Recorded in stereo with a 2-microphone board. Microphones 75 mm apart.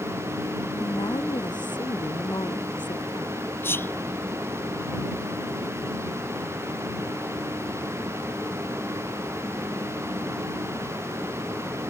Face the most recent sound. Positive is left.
turn(degrees=30)  # may be behind; listen again after turning